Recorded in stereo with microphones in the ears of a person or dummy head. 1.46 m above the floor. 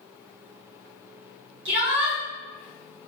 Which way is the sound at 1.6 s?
65° right (ahead or behind).